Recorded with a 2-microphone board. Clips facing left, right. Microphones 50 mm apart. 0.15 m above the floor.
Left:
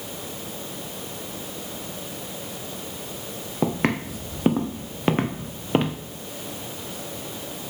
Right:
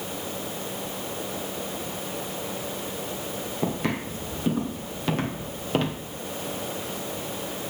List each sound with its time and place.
3.6 s footsteps: 55° left (ahead or behind), 2.5 m; by 6.0 s 15° left (ahead or behind), 1.6 m